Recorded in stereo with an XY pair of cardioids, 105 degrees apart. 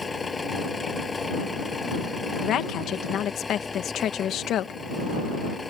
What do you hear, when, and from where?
0.0 s an engine running: 25° left
2.4 s a woman speaking: 70° left